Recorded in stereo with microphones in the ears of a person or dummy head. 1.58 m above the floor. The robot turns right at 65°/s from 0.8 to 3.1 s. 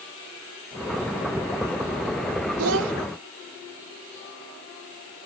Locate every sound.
2.6 s a child speaking: 80° right; by 2.9 s 70° right (ahead or behind)